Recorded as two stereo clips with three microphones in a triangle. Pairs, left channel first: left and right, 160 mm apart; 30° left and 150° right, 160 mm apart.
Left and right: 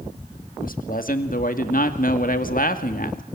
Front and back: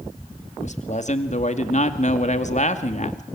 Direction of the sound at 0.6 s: 70° left.